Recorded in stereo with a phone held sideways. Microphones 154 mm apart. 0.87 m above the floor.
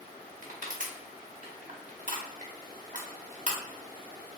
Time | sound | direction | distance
0.4 | crushing | 55° right (ahead or behind) | 0.7 m